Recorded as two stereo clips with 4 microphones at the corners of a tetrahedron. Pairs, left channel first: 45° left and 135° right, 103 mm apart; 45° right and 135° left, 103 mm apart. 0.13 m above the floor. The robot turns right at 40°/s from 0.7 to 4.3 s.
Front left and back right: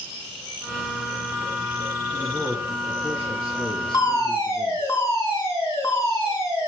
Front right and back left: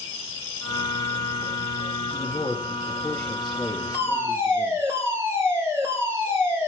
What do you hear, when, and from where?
2.1 s a man speaking: 15° right, 2 m; by 4.9 s 70° left, 2 m
3.9 s a fire alarm: 70° left, 3 m; by 6.7 s 85° left, 3 m